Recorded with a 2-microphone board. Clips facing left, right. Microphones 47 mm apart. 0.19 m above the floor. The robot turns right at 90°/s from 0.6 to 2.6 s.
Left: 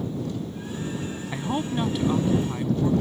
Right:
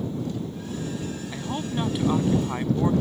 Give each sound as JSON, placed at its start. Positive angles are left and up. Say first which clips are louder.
{"t": 1.3, "sound": "a man speaking", "louder": "left 4 dB", "azimuth_deg": 135}